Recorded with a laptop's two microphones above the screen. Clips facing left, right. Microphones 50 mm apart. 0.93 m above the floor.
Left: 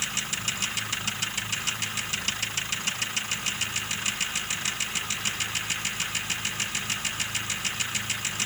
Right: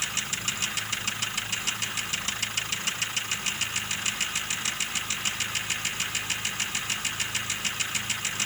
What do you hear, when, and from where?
Only background noise.